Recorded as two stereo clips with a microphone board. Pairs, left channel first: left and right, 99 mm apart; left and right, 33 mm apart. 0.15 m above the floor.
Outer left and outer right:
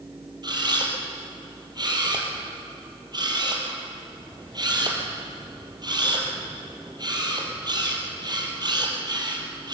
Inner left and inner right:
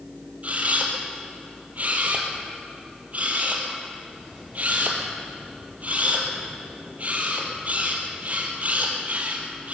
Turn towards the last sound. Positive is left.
turn(degrees=-45)  # may be behind; listen again after turning